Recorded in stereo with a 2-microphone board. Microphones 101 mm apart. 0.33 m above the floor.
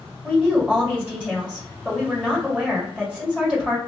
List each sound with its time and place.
0.2 s a woman speaking: 10° right (ahead or behind), 1.6 m